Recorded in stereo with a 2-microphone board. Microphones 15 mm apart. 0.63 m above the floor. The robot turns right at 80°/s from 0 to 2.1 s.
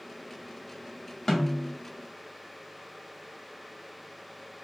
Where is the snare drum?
90° left, 1.1 m; by 1.7 s 125° left, 1.1 m.